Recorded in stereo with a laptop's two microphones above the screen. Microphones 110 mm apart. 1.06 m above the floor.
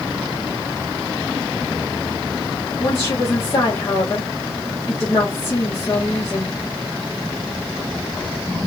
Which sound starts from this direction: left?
A woman speaking, at 2.8 s.